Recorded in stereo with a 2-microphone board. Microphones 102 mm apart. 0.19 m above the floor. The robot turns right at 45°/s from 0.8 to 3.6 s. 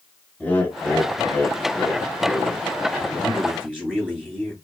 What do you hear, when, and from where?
0.4 s laughter: 20° left (ahead or behind), 1.0 m; by 2.6 s 15° left (ahead or behind), 1.0 m
3.0 s a man speaking: 20° left (ahead or behind), 3 m; by 4.5 s 5° right (ahead or behind), 3 m